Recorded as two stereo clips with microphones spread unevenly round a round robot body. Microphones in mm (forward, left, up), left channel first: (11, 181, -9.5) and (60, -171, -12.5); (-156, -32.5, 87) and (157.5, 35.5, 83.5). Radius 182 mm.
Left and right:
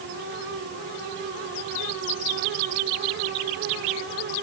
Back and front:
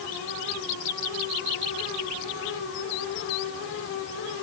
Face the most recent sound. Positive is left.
No sound to turn to.